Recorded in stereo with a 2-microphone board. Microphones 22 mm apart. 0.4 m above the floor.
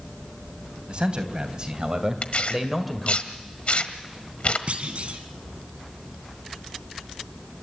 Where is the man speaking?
45° right (ahead or behind), 3 m; by 3.2 s 10° left (ahead or behind), 1.8 m.